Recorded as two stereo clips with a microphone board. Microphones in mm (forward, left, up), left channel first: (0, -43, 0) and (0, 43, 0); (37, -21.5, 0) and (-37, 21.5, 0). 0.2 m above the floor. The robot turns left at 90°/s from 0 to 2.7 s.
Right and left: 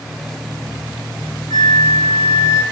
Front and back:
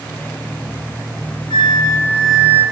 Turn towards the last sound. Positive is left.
turn(degrees=-155)